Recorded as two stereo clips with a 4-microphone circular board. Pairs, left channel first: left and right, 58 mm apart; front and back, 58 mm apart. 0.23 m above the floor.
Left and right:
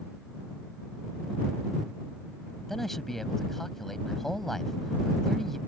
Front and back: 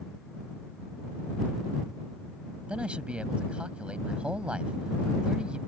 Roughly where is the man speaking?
Behind.